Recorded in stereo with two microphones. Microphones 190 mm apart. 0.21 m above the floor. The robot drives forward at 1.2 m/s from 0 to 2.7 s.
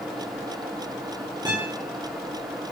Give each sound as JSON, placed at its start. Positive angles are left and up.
{"t": 1.4, "sound": "a guitar", "side_deg": -20, "distance_m": 7.0}